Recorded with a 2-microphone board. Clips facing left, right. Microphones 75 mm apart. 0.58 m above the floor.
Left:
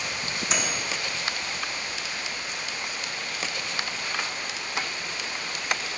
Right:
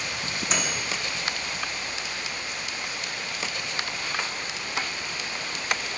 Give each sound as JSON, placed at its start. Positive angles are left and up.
{"t": 0.5, "sound": "a microwave", "side_deg": 0, "distance_m": 0.8}